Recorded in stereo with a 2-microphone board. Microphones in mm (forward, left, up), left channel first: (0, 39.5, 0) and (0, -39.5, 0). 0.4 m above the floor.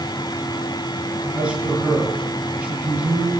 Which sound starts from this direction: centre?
A man speaking, at 1.3 s.